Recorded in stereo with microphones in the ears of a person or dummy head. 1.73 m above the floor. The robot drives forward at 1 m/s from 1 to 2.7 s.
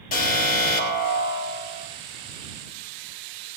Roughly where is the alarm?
Left.